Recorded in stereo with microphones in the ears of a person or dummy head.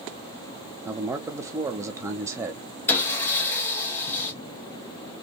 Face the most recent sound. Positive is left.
turn(degrees=15)  # may be behind; listen again after turning